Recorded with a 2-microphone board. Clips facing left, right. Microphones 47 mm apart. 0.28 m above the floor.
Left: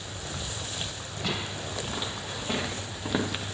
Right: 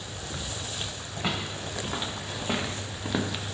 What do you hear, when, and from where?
1.2 s footsteps: 25° right (ahead or behind), 4 m; by 3.5 s 25° left (ahead or behind), 1.1 m